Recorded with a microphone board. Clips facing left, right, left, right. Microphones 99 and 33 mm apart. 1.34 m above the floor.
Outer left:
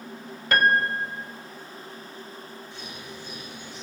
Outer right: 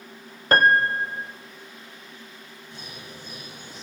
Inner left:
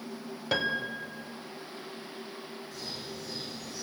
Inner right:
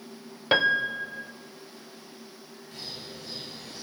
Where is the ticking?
No ticking in this recording.